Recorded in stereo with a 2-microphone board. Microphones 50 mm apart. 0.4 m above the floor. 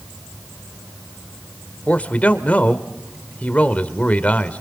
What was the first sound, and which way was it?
A man speaking, 30° left (ahead or behind).